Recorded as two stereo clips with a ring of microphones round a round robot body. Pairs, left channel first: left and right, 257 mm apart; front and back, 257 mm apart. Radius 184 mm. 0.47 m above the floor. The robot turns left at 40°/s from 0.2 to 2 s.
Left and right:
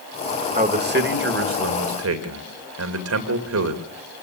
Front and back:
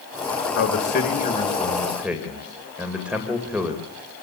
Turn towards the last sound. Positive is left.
turn(degrees=-95)